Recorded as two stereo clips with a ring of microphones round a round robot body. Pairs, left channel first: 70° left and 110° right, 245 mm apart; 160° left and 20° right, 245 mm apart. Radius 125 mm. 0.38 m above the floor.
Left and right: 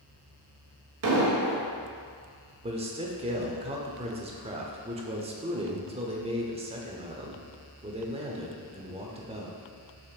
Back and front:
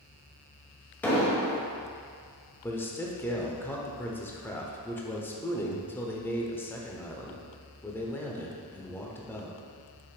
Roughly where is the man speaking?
Behind right.